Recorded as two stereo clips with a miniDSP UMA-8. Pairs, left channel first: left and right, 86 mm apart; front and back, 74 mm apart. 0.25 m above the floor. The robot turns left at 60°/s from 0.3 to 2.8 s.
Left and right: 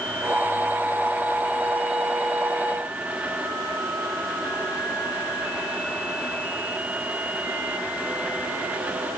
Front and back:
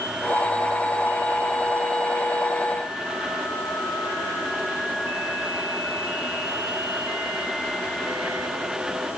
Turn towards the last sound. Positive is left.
No sound to turn to.